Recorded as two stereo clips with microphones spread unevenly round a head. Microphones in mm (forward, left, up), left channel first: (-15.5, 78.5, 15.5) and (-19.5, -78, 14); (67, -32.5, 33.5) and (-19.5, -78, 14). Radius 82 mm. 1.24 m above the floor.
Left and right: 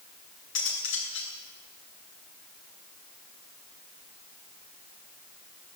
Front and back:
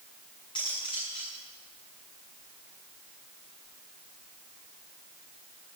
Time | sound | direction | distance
0.6 | cutlery clinking | 90° left | 8.5 m